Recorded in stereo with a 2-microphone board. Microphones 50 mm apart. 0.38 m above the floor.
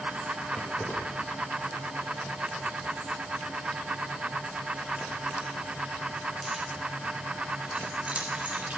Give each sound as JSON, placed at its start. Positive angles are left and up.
{"t": 0.5, "sound": "keys jangling", "side_deg": 30, "distance_m": 9.0}